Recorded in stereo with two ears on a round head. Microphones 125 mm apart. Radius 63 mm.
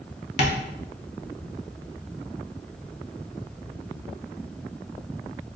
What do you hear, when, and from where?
0.4 s tapping: 55° left (ahead or behind), 0.6 m